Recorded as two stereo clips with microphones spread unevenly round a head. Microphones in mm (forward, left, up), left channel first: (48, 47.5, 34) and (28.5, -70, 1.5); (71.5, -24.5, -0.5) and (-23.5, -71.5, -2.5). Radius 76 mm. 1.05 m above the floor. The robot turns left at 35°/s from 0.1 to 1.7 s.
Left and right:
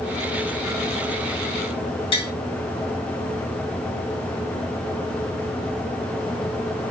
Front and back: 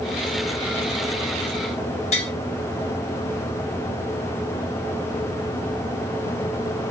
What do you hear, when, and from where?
2.1 s tapping: 35° left, 1.2 m